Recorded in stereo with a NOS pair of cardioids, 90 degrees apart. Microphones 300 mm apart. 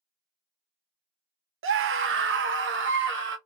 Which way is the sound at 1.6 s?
45° right.